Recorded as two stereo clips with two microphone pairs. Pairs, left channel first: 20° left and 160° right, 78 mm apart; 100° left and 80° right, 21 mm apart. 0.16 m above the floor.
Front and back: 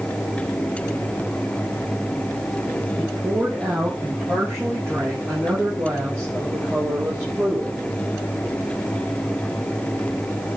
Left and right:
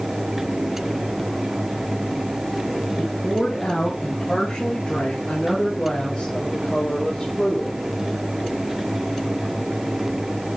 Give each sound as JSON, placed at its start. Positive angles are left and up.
{"t": 3.0, "sound": "a woman speaking", "azimuth_deg": 145, "distance_m": 8.0}